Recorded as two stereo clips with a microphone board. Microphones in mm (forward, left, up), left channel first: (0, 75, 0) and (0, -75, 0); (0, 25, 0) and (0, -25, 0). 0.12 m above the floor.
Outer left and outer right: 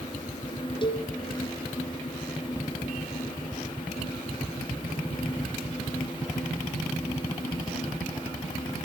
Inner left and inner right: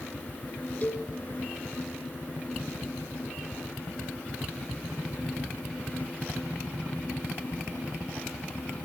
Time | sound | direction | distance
0.8 | a cowbell | 30° left (ahead or behind) | 2 m